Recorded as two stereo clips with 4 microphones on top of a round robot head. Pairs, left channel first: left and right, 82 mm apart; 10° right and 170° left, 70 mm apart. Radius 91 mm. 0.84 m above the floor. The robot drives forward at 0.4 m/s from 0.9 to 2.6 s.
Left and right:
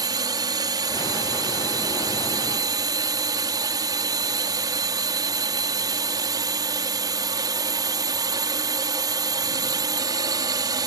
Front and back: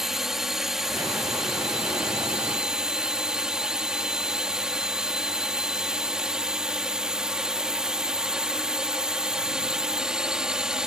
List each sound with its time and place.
0.0 s a drone: 110° right; by 10.9 s 115° right